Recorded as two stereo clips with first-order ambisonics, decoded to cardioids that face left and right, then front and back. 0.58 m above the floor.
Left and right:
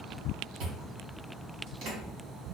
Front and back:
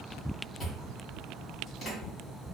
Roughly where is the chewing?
Ahead right.